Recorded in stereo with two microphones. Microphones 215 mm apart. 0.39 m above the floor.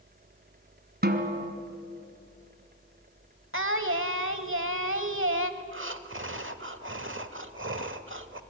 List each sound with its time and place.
1.0 s a snare drum: 50° right (ahead or behind), 1.7 m
3.5 s singing: 70° right (ahead or behind), 1.2 m
5.6 s breathing: 65° right (ahead or behind), 0.9 m